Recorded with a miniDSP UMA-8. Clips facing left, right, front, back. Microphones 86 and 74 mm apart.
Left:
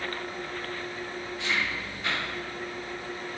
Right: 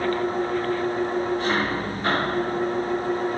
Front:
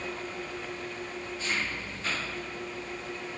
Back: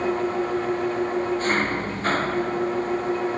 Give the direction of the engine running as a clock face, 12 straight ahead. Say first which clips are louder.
Right 12 dB, back 14 dB; 5 o'clock.